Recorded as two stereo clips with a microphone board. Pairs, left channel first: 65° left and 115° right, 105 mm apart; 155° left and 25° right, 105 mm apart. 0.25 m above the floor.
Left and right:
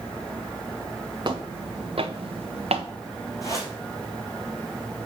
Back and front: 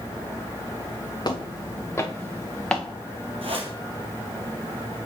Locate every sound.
1.2 s footsteps: 155° right, 1.3 m; by 2.9 s 115° right, 1.4 m
3.4 s a whoosh: 10° left, 3 m